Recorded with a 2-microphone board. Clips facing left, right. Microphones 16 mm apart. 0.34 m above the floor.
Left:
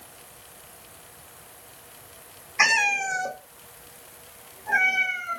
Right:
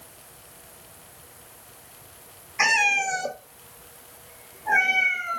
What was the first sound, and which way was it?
A cat meowing, 10° left (ahead or behind).